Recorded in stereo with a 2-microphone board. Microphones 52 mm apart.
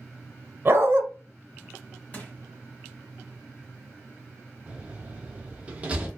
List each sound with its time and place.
0.7 s a dog barking: 45° right (ahead or behind), 0.5 m
2.1 s crushing: 25° left (ahead or behind), 1.2 m
4.7 s a door slam: 25° right (ahead or behind), 0.7 m